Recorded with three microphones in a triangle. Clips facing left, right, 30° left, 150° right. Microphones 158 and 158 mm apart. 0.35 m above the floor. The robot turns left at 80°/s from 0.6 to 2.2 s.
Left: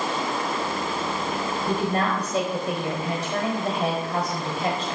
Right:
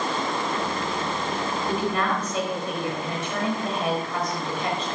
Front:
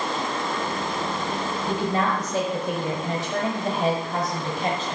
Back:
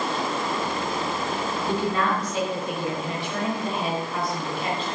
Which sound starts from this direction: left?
A woman speaking, at 1.7 s.